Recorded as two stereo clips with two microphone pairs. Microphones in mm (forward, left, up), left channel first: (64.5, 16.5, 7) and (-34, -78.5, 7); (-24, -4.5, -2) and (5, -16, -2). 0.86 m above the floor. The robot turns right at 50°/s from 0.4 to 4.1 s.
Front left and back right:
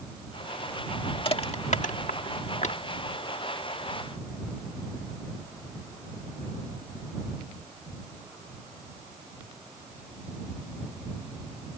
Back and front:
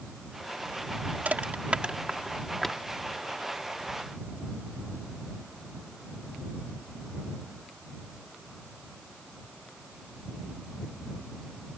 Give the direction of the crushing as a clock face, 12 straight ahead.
12 o'clock.